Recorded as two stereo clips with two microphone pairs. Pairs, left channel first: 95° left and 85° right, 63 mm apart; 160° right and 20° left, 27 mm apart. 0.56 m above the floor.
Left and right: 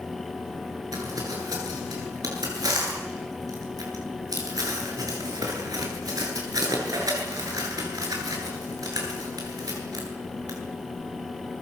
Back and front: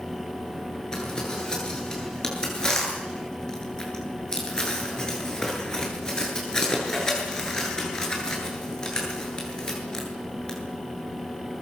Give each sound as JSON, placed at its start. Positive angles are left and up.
{"t": 0.9, "sound": "crumpling", "azimuth_deg": -100, "distance_m": 8.5}